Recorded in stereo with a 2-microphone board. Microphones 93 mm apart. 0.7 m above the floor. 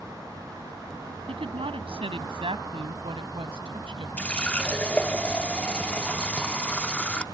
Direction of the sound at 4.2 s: 15° left (ahead or behind).